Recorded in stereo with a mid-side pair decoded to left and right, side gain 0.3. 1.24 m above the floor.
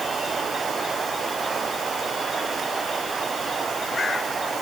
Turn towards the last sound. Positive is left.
No sound to turn to.